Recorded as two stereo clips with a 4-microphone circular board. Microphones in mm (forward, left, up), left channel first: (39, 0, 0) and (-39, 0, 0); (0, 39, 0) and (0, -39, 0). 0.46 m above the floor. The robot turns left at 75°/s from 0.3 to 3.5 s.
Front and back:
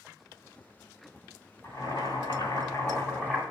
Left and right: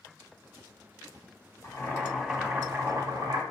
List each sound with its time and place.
1.6 s boiling: 55° left, 3 m; by 3.4 s 80° right, 3 m